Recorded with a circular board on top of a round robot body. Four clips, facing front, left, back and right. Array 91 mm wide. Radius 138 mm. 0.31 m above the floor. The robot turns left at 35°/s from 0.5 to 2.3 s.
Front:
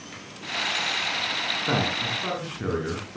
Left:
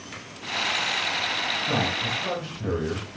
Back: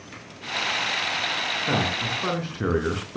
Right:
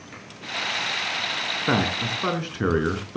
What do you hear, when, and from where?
1.7 s a man speaking: 85° right, 5 m; by 3.2 s 105° right, 5 m